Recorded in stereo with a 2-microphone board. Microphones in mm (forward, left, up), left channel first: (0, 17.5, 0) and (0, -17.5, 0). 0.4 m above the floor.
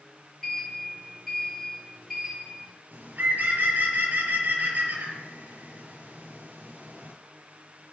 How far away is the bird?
About 5 m.